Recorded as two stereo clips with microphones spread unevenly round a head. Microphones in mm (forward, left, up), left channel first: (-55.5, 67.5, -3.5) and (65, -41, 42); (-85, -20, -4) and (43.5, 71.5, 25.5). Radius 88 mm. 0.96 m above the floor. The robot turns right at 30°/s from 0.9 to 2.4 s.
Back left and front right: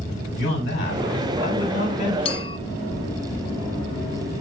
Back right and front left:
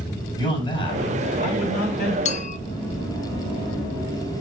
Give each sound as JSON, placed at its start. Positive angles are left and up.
{"t": 0.4, "sound": "a man speaking", "azimuth_deg": 155, "distance_m": 4.5}
{"t": 2.2, "sound": "a clink", "azimuth_deg": -175, "distance_m": 0.5}